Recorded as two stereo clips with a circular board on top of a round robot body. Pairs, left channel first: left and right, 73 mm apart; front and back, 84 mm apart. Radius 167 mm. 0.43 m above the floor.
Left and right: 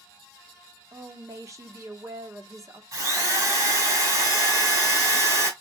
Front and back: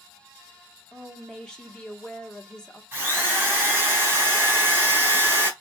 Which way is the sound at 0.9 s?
80° right.